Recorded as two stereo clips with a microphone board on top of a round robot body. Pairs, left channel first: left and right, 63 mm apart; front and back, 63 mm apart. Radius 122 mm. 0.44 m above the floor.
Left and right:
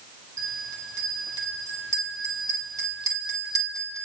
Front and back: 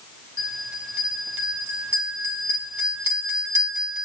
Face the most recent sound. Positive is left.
turn(degrees=-115)